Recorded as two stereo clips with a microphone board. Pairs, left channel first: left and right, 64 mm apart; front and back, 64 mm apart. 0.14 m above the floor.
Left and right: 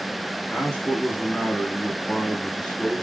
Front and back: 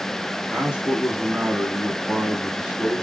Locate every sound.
0.5 s a man speaking: 140° left, 1.6 m